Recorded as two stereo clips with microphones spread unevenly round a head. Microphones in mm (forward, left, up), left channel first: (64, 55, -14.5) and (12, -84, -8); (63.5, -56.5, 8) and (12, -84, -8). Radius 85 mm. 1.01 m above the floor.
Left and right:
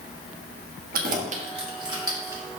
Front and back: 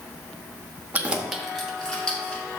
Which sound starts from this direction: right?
Keys jangling, at 0.9 s.